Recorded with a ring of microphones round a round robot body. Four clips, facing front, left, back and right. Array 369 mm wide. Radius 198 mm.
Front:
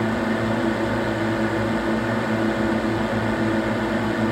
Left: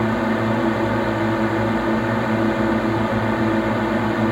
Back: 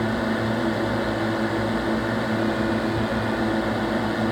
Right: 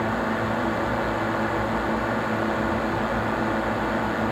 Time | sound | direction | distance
0.0 | a drone | 75° left | ?